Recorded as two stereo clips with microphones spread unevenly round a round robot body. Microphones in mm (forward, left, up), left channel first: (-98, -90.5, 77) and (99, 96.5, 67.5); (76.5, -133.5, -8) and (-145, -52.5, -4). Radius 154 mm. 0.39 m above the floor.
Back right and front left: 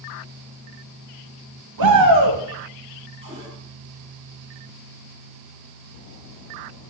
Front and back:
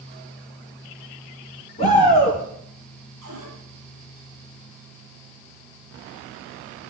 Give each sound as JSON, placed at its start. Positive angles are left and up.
{"t": 1.8, "sound": "a shout", "azimuth_deg": 50, "distance_m": 3.5}
{"t": 3.2, "sound": "a cupboard door", "azimuth_deg": 115, "distance_m": 9.5}